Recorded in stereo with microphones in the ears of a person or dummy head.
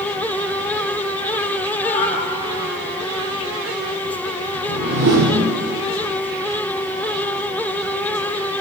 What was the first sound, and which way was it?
A cat meowing, 35° left (ahead or behind).